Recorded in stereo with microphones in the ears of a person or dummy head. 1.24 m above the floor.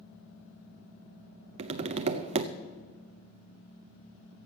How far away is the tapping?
About 0.5 m.